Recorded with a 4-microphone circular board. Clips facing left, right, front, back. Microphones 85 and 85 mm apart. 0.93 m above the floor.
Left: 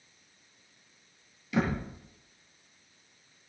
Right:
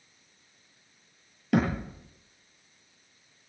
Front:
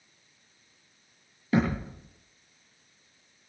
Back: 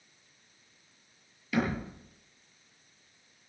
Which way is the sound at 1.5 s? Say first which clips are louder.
Right 3 dB, front 4 dB; 55° right.